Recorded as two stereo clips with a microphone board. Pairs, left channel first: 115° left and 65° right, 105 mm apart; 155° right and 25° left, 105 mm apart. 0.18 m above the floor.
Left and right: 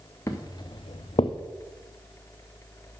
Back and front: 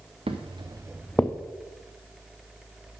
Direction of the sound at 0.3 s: 50° left.